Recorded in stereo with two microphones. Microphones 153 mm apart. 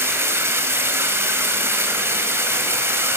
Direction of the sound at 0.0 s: 15° right (ahead or behind).